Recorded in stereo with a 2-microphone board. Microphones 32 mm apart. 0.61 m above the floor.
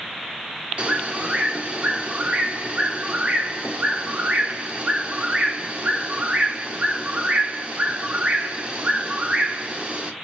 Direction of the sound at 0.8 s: 45° right (ahead or behind).